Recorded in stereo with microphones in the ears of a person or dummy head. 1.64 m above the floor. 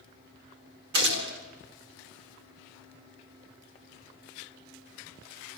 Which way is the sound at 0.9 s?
65° right (ahead or behind).